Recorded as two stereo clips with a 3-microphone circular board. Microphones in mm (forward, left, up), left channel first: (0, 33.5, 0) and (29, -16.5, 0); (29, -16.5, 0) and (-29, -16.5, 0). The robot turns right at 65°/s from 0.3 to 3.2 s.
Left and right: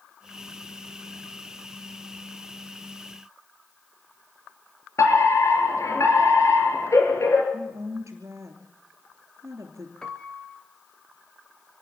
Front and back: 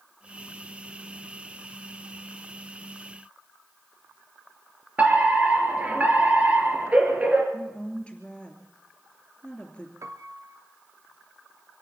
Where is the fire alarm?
120° left, 4.5 m.